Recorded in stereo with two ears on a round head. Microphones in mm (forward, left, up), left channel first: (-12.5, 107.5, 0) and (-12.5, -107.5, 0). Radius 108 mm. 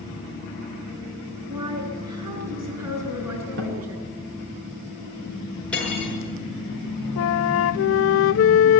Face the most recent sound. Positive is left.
turn(degrees=60)  # may be behind; listen again after turning